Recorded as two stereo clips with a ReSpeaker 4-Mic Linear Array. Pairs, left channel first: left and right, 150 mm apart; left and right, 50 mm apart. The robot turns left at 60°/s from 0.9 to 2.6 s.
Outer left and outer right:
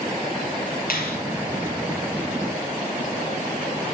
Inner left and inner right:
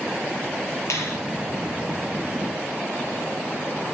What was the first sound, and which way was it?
A finger snap, 75° left (ahead or behind).